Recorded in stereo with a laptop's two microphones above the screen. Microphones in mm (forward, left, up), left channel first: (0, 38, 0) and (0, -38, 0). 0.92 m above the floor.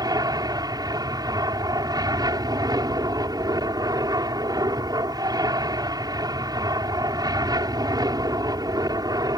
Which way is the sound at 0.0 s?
60° right (ahead or behind).